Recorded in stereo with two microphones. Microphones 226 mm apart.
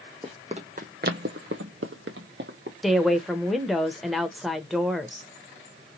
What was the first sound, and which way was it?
Running footsteps, 20° right (ahead or behind).